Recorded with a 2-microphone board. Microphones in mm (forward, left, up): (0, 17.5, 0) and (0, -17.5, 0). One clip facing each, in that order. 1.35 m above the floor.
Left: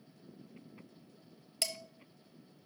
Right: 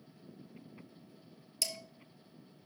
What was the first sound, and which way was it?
Dishes clattering, 40° left (ahead or behind).